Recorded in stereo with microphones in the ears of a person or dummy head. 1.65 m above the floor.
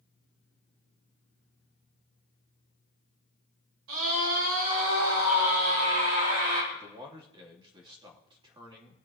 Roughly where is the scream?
Right.